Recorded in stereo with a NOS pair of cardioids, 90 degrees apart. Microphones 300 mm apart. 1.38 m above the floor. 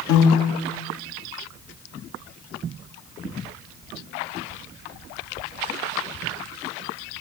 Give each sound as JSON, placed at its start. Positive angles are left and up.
{"t": 0.1, "sound": "a piano", "azimuth_deg": 65, "distance_m": 0.6}